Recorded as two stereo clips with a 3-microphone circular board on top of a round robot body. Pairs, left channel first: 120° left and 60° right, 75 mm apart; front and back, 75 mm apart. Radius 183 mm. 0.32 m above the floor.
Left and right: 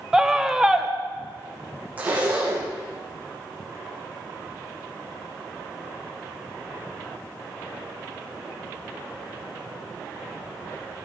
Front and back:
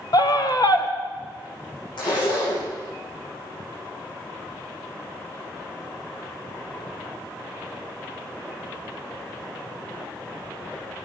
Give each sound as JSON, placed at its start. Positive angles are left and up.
{"t": 0.1, "sound": "a scream", "azimuth_deg": 25, "distance_m": 1.9}
{"t": 2.0, "sound": "a zipper", "azimuth_deg": 15, "distance_m": 8.5}